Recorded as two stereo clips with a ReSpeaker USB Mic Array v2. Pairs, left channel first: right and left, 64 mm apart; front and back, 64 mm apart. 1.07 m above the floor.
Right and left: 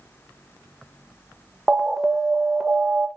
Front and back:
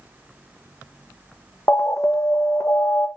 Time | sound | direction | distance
1.7 | an alarm | 10° left | 0.8 m